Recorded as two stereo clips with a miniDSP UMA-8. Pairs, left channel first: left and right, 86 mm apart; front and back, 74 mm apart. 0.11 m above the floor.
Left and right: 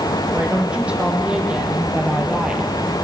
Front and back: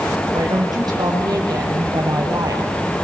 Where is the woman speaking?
170° right, 5 m.